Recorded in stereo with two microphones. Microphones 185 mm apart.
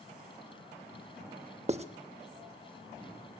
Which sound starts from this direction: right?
Writing, at 1.7 s.